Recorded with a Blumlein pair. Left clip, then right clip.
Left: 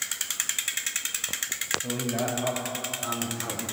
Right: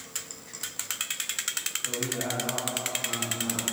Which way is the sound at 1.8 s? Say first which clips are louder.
Left 1 dB; 55° left.